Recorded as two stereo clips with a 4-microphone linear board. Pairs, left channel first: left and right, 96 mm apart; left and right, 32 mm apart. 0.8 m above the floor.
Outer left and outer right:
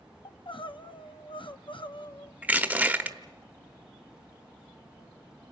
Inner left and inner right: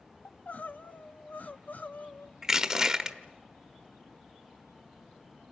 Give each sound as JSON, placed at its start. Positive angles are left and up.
{"t": 0.2, "sound": "crying", "side_deg": 60, "distance_m": 0.7}
{"t": 2.4, "sound": "crushing", "side_deg": -15, "distance_m": 1.1}